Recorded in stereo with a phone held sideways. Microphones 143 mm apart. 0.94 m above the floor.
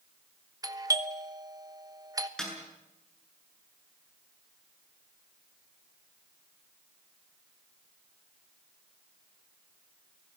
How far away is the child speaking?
No child speaking in this recording.